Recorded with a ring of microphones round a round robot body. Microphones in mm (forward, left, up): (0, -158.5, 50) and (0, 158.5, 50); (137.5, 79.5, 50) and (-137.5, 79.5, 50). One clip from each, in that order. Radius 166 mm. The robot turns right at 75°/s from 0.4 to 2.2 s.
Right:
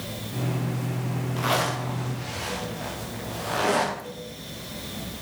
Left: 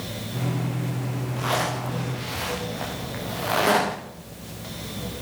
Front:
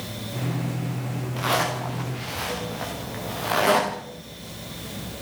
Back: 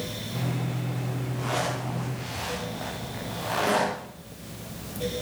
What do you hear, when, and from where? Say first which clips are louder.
1.4 s a zipper: even, front 5 dB; 15° right, 9 m; by 4.0 s 45° left, 9 m